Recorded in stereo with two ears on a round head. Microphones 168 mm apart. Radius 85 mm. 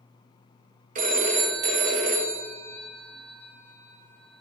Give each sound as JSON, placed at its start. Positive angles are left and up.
{"t": 0.9, "sound": "a phone ringing", "side_deg": -45, "distance_m": 0.6}